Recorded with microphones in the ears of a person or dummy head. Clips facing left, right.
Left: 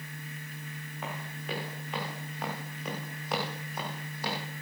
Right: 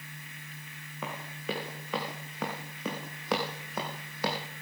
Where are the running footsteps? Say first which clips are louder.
Right 3 dB; 70° right (ahead or behind), 6 m; by 4.4 s 50° right (ahead or behind), 4.5 m.